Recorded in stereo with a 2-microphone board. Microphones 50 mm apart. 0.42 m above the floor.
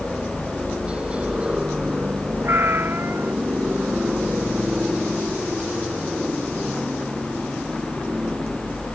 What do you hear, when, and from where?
0.0 s a helicopter: 25° right (ahead or behind)
2.4 s a cat meowing: 50° right (ahead or behind)